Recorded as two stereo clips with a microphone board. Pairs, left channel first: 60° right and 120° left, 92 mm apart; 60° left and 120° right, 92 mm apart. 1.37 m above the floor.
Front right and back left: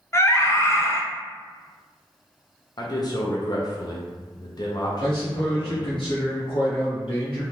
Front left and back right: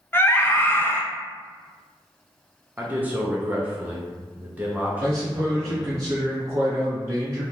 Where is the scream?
5° right, 0.5 m.